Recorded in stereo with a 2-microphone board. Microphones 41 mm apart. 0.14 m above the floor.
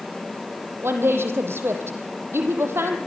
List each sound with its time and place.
0.8 s a woman speaking: 70° right (ahead or behind), 4.5 m